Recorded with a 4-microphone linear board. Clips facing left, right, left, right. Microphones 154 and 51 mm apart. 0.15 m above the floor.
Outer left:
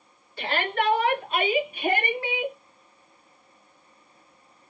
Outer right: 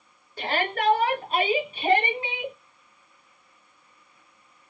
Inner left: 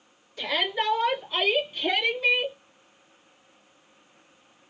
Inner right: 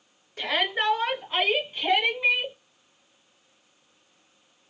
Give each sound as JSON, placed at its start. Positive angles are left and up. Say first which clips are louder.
{"t": 0.4, "sound": "a shout", "louder": "even, inner right 1 dB", "side_deg": -40, "distance_m": 2.5}